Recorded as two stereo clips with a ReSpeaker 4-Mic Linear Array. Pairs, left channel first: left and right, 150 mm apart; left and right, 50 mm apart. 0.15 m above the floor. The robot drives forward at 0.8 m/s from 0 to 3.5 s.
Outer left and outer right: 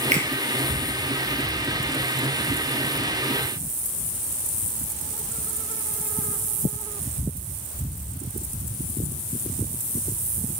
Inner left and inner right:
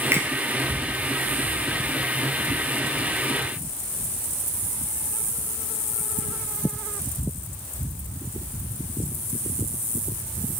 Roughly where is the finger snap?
Right.